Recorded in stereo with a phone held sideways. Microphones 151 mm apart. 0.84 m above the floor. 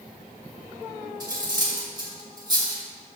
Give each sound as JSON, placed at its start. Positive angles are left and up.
{"t": 1.2, "sound": "cutlery clinking", "side_deg": -30, "distance_m": 2.0}